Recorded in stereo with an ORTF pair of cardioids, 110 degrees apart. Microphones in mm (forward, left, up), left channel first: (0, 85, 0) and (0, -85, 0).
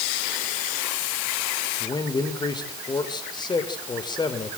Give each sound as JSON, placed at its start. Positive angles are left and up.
{"t": 1.8, "sound": "a man speaking", "azimuth_deg": 25, "distance_m": 5.0}